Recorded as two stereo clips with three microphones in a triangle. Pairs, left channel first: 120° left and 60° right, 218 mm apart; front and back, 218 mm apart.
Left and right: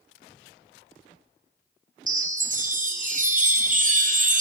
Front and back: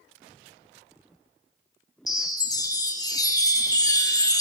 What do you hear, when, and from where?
2.1 s a chime: 60° right, 0.5 m